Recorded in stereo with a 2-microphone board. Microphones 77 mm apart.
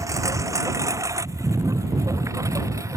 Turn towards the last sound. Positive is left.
turn(degrees=-45)  # may be behind; listen again after turning